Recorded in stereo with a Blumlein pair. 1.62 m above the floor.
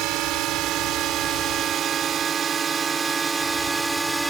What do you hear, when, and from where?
0.0 s a drone: 40° right; by 4.3 s 10° right